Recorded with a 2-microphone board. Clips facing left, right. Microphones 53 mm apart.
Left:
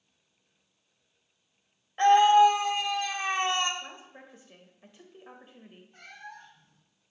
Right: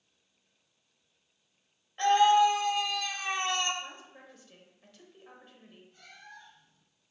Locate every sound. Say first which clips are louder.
2.0 s a scream: left 4 dB; 30° left (ahead or behind), 1.0 m
3.8 s a woman speaking: even; 25° left (ahead or behind), 1.0 m
5.9 s a cat meowing: left 6 dB; 60° left (ahead or behind), 1.2 m